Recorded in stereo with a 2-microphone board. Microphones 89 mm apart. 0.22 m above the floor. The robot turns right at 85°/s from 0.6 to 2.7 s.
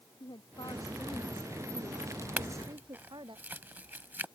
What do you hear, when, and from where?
0.2 s a woman speaking: 125° left; by 3.4 s 60° right
2.4 s a clink: 15° right (ahead or behind); by 4.2 s 20° right (ahead or behind)